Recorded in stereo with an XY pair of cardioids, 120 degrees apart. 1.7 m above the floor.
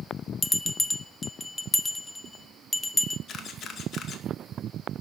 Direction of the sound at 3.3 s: 55° left.